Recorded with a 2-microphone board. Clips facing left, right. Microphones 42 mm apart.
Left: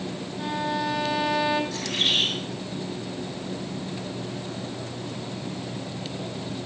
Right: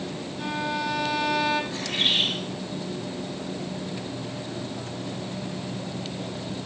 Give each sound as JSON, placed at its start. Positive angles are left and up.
{"t": 0.4, "sound": "a violin", "side_deg": 5, "distance_m": 1.8}
{"t": 1.7, "sound": "a bird", "side_deg": -25, "distance_m": 8.0}